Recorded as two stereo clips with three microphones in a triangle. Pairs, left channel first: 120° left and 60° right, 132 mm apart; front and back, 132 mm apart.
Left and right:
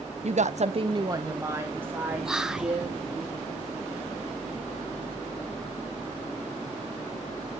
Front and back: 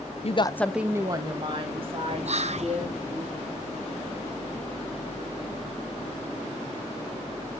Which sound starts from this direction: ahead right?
A woman speaking, at 0.2 s.